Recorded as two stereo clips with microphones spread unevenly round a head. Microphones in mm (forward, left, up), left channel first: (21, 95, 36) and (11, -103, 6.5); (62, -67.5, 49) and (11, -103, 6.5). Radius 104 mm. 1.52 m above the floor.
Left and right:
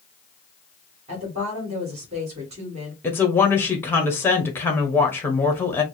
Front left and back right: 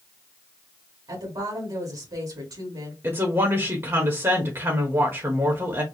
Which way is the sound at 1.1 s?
155° right.